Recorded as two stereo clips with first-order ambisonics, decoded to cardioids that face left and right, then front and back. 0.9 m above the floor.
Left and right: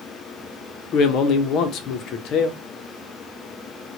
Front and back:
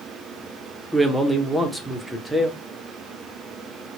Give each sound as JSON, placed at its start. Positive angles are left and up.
{"t": 0.9, "sound": "a man speaking", "azimuth_deg": 90, "distance_m": 0.6}